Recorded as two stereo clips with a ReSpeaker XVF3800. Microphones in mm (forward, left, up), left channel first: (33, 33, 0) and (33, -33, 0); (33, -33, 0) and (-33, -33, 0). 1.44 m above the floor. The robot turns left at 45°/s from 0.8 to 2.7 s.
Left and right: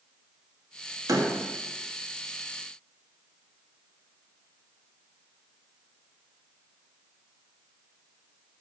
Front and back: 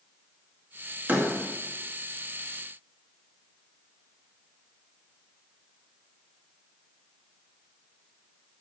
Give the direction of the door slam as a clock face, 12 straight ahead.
4 o'clock.